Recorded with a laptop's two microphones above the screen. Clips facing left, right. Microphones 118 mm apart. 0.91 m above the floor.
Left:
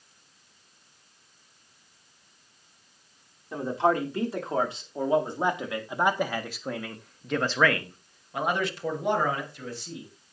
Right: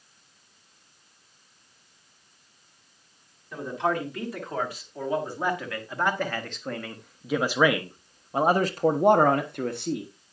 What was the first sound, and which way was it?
A man speaking, 35° left (ahead or behind).